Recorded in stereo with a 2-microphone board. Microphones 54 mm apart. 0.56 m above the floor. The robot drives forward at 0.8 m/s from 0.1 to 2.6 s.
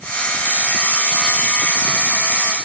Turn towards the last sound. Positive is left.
No sound to turn to.